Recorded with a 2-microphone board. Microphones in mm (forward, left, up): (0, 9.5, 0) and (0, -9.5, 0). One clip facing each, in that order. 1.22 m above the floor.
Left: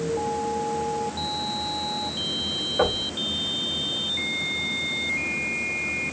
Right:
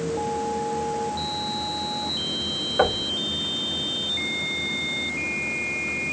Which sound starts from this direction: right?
Knocking, at 2.8 s.